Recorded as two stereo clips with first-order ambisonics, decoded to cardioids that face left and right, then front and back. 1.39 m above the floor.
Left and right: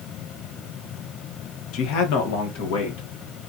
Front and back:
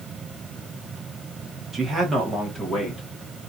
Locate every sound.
1.7 s a man speaking: 110° left, 1.1 m; by 3.0 s 90° left, 1.7 m